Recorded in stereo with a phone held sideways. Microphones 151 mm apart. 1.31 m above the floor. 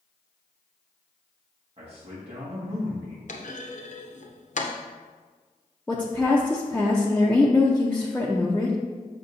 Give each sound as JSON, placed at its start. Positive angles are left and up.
{"t": 1.8, "sound": "a man speaking", "side_deg": -40, "distance_m": 1.7}
{"t": 3.3, "sound": "a clunk", "side_deg": 60, "distance_m": 0.7}
{"t": 5.9, "sound": "a woman speaking", "side_deg": 10, "distance_m": 0.6}